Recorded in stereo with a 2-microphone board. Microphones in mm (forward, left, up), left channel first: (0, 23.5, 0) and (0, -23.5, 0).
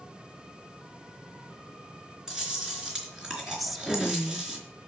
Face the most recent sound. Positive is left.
turn(degrees=0)  # may be behind; listen again after turning